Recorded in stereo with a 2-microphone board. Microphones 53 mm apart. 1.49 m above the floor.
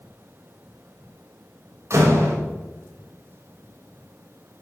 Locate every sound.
1.9 s a door slam: 65° right (ahead or behind), 6 m